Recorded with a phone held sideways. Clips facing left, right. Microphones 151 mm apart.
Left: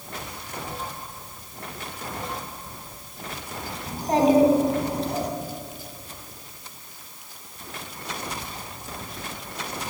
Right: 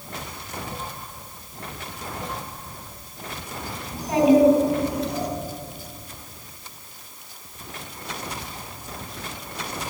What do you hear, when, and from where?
3.9 s a child speaking: 30° left (ahead or behind), 3.5 m